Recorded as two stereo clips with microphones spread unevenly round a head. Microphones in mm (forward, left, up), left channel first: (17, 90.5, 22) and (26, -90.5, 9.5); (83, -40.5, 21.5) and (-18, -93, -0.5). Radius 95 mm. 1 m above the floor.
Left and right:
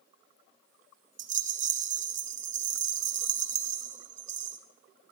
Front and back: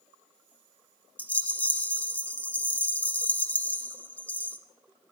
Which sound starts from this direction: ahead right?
A rattle, at 1.2 s.